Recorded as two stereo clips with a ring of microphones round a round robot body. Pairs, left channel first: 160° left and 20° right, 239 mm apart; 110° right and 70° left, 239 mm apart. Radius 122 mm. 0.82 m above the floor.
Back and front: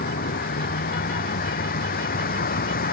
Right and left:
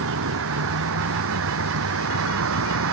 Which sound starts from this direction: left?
A vehicle, at 0.0 s.